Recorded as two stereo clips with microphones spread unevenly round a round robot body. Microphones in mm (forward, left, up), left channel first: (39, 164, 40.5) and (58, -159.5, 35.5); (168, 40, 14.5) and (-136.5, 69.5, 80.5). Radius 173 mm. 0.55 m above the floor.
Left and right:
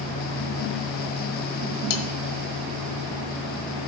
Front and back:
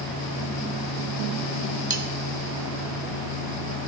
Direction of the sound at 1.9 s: 105° left.